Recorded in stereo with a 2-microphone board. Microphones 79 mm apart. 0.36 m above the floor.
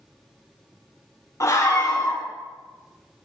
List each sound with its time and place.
1.4 s a scream: 40° left (ahead or behind), 3 m